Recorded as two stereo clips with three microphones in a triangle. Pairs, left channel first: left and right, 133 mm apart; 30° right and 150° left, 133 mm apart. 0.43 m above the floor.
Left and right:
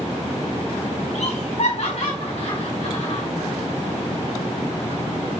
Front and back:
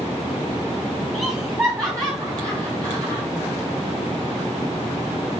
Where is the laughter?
85° left, 3.5 m; by 3.2 s 100° left, 2.5 m.